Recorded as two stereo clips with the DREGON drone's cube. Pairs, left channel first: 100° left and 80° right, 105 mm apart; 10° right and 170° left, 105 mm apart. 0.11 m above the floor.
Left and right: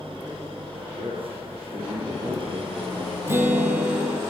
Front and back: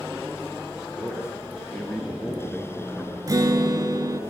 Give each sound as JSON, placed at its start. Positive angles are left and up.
{"t": 1.0, "sound": "a man speaking", "azimuth_deg": -85, "distance_m": 3.5}
{"t": 3.3, "sound": "a guitar", "azimuth_deg": -140, "distance_m": 1.3}